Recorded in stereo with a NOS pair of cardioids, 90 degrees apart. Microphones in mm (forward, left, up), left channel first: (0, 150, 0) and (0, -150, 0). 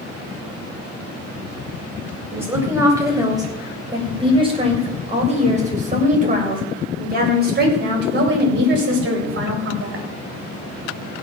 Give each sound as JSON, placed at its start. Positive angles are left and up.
{"t": 2.3, "sound": "a woman speaking", "azimuth_deg": -5, "distance_m": 7.5}